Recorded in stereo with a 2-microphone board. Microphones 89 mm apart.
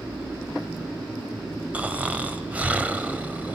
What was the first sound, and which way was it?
Snoring, 15° right (ahead or behind).